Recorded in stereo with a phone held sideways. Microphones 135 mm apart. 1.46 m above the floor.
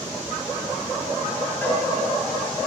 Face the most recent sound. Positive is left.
turn(degrees=15)  # may be behind; listen again after turning